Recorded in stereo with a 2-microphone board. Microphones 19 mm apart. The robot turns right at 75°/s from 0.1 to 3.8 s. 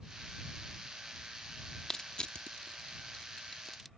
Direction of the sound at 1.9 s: 30° left (ahead or behind).